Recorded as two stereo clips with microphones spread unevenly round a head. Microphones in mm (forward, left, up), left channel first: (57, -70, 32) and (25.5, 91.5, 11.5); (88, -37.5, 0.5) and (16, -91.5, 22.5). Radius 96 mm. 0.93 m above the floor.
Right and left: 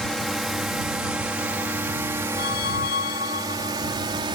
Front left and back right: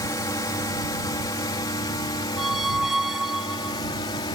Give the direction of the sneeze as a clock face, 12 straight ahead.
I don't hear a sneeze.